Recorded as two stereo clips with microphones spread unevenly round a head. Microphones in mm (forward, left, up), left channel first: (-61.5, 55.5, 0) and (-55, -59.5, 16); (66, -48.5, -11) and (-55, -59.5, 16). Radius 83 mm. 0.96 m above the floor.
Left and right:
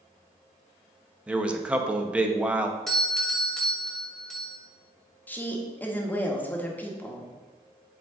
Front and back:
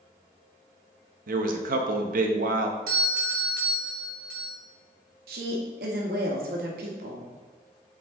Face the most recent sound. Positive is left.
turn(degrees=165)